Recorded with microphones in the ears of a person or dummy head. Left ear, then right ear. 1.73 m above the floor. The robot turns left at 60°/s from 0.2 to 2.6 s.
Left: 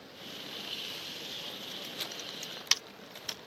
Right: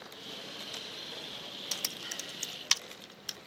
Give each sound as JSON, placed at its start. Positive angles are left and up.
{"t": 1.7, "sound": "typing on a keyboard", "side_deg": -45}